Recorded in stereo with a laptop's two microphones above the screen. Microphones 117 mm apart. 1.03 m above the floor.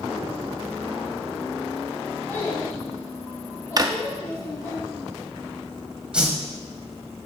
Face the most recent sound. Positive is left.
turn(degrees=-10)  # may be behind; listen again after turning